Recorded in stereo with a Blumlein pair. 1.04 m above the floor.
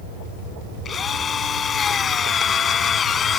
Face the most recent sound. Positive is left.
turn(degrees=20)